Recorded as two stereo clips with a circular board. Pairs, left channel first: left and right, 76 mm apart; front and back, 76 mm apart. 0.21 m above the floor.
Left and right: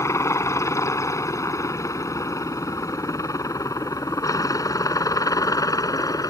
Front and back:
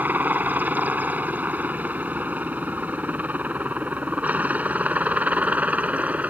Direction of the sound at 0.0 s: 120° left.